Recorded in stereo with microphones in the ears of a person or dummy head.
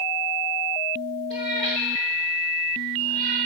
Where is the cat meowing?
25° left (ahead or behind), 1.3 m; by 3.4 s 50° left (ahead or behind), 3.5 m.